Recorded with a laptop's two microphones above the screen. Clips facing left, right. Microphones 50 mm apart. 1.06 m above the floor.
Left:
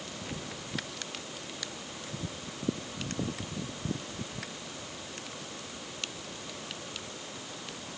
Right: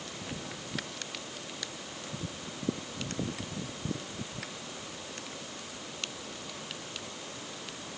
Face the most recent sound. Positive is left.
No sound to turn to.